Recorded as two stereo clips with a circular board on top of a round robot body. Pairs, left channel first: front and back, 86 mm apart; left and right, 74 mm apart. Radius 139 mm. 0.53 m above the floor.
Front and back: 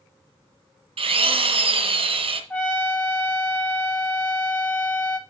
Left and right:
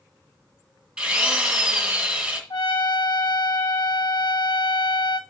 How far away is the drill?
About 2 m.